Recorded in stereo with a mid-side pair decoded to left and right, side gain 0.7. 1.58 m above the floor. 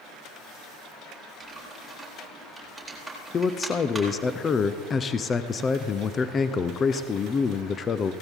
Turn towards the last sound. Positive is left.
turn(degrees=30)